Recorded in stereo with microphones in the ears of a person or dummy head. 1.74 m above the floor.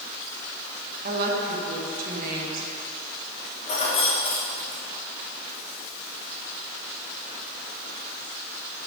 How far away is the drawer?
No drawer in this recording.